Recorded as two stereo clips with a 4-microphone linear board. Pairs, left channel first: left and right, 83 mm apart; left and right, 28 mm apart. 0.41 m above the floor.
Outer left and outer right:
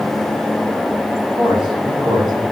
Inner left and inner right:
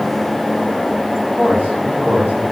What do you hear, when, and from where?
1.4 s a man speaking: 70° right (ahead or behind), 3 m